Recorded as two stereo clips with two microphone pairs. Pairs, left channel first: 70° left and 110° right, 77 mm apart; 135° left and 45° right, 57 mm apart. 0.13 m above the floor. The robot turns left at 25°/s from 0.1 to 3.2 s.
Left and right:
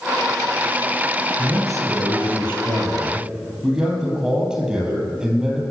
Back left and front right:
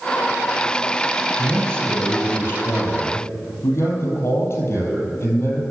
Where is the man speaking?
140° right, 4 m; by 5.6 s 175° left, 4 m.